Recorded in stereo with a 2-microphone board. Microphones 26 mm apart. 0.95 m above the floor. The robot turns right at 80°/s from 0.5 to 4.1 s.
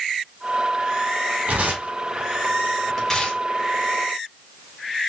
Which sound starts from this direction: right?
Tearing paper, at 1.5 s.